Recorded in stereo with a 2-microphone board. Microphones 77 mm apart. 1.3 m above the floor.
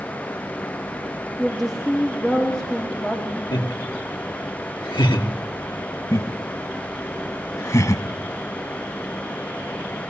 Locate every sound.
1.4 s a woman speaking: centre (ahead or behind), 3 m; by 3.4 s 5° left (ahead or behind), 4 m
3.5 s laughter: 90° left, 4 m
6.1 s laughter: 45° left (ahead or behind), 1.9 m